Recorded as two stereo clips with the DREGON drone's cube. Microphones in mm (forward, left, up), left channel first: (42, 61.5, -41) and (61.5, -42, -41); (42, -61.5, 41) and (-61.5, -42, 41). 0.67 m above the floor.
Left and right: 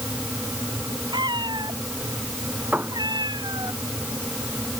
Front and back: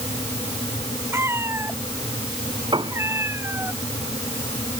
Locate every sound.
1.1 s a cat meowing: 125° right
2.7 s a piano: 150° right